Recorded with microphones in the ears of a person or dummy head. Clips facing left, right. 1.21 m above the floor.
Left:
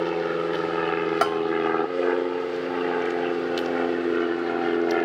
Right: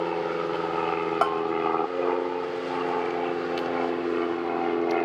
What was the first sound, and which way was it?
An aircraft, 15° left (ahead or behind).